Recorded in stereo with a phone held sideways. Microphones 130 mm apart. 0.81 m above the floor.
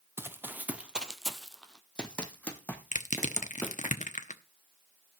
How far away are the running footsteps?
About 0.9 m.